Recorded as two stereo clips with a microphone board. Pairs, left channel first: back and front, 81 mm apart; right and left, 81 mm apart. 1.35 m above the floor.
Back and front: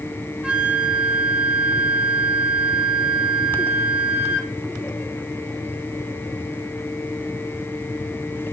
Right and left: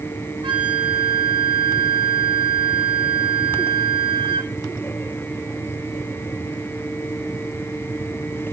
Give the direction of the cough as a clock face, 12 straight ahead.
I don't hear a cough.